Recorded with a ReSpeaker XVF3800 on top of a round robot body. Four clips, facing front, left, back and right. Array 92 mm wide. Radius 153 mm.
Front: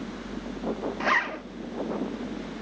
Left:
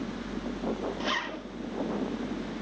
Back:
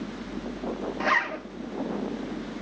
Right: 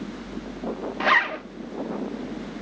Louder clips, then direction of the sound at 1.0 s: Right 11 dB, back 1 dB; 90° right.